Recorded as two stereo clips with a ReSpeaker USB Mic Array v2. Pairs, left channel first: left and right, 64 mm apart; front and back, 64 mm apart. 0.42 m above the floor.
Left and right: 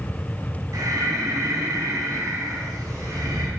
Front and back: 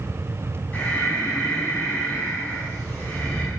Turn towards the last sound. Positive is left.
turn(degrees=-65)